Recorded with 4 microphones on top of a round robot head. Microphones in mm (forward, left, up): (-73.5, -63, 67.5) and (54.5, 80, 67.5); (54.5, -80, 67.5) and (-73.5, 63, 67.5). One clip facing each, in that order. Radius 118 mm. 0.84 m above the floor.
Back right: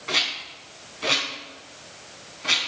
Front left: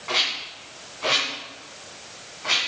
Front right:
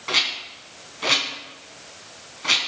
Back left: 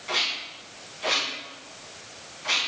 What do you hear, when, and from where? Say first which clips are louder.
0.1 s a rattle: front left 1 dB, front right 2 dB; 75° right, 3.5 m